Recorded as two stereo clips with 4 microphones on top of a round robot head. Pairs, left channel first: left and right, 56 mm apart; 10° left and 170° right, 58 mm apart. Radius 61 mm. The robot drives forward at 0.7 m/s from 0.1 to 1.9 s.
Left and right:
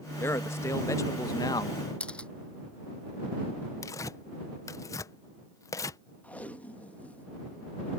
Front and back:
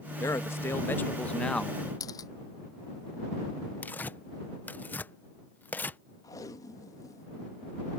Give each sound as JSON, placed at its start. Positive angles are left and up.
{"t": 0.2, "sound": "a man speaking", "azimuth_deg": 45}
{"t": 2.0, "sound": "a camera shutter", "azimuth_deg": 20}
{"t": 3.8, "sound": "tearing paper", "azimuth_deg": 65}
{"t": 6.2, "sound": "tape being pulled", "azimuth_deg": 25}